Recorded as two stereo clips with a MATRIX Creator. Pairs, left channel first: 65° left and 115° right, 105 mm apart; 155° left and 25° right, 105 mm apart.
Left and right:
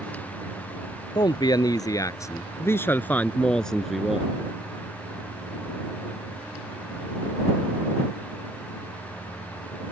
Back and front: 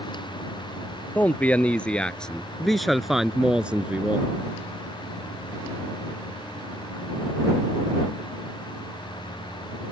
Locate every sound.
1.1 s a man speaking: 90° left; by 4.3 s 45° right